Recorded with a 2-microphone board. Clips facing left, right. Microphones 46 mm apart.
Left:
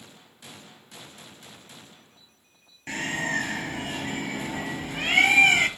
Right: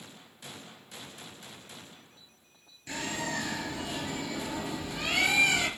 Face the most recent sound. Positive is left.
turn(degrees=45)  # may be behind; listen again after turning